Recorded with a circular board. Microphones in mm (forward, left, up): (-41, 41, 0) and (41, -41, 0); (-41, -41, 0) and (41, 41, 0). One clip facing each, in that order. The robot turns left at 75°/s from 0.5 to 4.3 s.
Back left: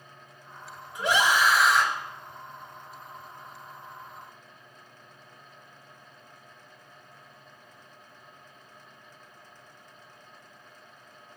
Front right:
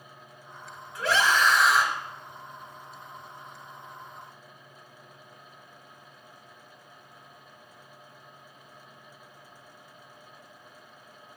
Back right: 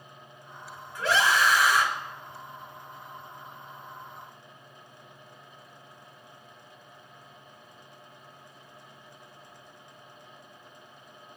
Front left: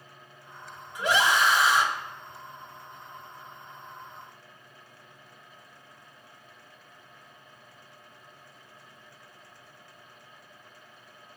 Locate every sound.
0.9 s a scream: 100° left, 1.2 m; by 1.9 s 30° left, 1.2 m